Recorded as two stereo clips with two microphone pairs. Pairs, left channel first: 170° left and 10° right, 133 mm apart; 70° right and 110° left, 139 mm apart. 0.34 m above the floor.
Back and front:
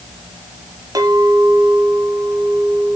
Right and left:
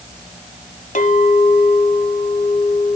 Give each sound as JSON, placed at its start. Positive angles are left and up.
{"t": 0.9, "sound": "a clink", "azimuth_deg": -65, "distance_m": 1.2}